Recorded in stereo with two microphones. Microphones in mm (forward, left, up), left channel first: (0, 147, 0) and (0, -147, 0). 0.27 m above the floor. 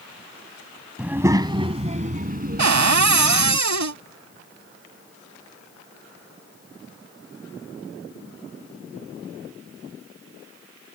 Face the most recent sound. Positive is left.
turn(degrees=-70)  # may be behind; listen again after turning